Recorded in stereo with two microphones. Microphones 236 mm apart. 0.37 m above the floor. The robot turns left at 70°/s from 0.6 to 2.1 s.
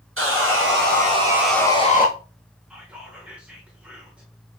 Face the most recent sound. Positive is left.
turn(degrees=-5)  # may be behind; listen again after turning